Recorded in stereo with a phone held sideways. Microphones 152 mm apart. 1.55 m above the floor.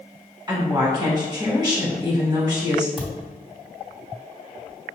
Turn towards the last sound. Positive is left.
turn(degrees=0)  # may be behind; listen again after turning